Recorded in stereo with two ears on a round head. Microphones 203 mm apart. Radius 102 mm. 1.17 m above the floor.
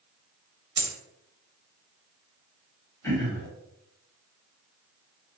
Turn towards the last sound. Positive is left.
turn(degrees=10)  # may be behind; listen again after turning